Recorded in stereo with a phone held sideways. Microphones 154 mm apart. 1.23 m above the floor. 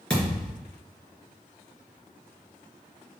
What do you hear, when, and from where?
0.1 s a thud: 5° left (ahead or behind), 3 m